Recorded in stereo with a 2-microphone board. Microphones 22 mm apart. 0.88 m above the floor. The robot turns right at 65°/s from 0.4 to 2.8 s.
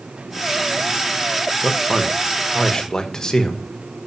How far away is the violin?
I don't hear a violin.